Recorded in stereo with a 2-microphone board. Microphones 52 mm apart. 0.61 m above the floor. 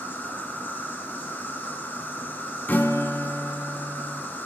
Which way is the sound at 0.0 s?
40° left (ahead or behind).